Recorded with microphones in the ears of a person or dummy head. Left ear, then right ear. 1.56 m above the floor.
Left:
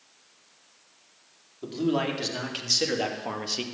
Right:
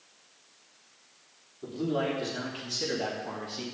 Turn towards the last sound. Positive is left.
turn(degrees=55)  # may be behind; listen again after turning